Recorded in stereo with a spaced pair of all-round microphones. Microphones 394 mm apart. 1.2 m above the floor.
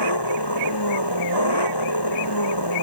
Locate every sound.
0.0 s an engine running: 80° left